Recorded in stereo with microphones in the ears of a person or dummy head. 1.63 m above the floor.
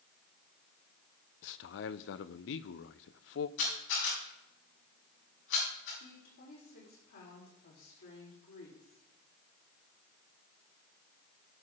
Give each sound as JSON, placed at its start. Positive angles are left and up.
{"t": 1.4, "sound": "a man speaking", "side_deg": 70, "distance_m": 0.7}
{"t": 3.6, "sound": "a camera shutter", "side_deg": 75, "distance_m": 7.5}
{"t": 6.0, "sound": "a woman speaking", "side_deg": 75, "distance_m": 4.0}